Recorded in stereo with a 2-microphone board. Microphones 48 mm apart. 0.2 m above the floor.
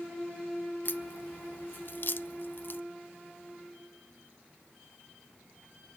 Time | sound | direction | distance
0.8 | a crack | 50° left (ahead or behind) | 0.6 m